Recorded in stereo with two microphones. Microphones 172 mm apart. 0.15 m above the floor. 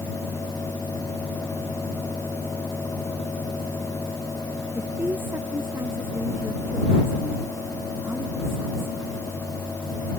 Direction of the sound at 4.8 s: 15° right (ahead or behind).